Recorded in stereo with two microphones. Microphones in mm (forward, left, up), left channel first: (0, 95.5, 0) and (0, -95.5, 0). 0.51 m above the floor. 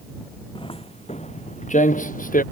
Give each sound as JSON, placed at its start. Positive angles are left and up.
{"t": 0.6, "sound": "footsteps", "side_deg": 25}